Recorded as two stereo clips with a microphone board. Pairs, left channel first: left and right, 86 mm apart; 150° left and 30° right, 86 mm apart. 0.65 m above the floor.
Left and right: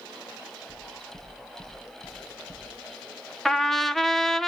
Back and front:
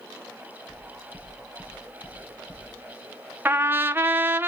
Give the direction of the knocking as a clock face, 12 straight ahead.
8 o'clock.